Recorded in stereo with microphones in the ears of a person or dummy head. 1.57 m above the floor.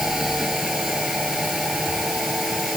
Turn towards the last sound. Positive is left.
turn(degrees=0)  # may be behind; listen again after turning